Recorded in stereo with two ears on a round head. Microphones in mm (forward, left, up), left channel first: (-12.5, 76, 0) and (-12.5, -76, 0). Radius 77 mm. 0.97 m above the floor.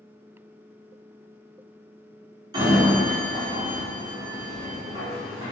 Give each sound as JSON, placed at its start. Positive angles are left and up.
{"t": 2.5, "sound": "a sliding door", "side_deg": -25, "distance_m": 1.0}